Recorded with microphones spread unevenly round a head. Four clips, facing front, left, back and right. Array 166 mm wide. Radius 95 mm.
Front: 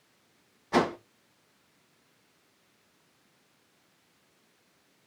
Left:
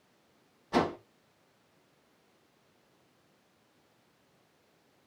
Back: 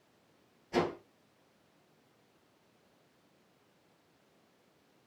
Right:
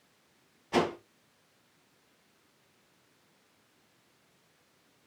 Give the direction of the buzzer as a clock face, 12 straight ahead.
I don't hear a buzzer.